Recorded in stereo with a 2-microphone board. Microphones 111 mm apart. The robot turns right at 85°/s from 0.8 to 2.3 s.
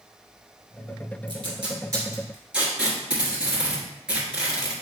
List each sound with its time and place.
1.3 s tape being pulled: 45° right (ahead or behind), 1.3 m; by 4.7 s 10° right (ahead or behind), 1.3 m